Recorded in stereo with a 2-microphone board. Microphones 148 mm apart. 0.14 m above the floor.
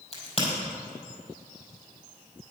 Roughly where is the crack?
Left.